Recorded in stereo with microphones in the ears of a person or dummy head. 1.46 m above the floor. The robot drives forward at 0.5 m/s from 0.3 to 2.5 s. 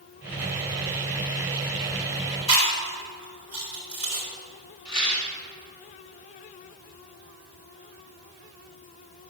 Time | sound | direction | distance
2.5 | chewing | 35° left (ahead or behind) | 4 m
4.8 | a rattle | 85° left | 3.5 m